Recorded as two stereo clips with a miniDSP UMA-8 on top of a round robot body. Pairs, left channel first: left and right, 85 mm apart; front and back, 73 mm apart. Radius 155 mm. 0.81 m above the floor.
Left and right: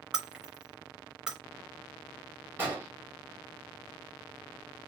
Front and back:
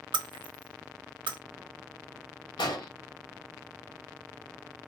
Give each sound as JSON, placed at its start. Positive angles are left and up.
{"t": 0.1, "sound": "breaking glass", "azimuth_deg": -170, "distance_m": 0.7}
{"t": 2.6, "sound": "an explosion", "azimuth_deg": -20, "distance_m": 1.6}